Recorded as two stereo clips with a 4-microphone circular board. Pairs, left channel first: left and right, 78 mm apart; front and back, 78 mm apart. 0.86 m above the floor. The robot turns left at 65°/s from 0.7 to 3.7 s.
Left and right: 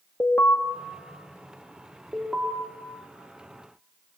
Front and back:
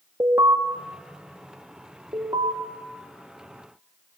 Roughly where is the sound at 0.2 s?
Behind left.